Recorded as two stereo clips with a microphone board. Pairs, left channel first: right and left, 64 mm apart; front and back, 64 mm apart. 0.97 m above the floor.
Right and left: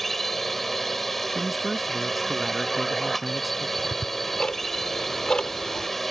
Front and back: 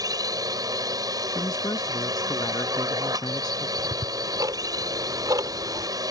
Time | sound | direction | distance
0.0 | a drone | 175° right | ?
1.4 | a man speaking | 5° left | ?
3.8 | ticking | 165° right | ?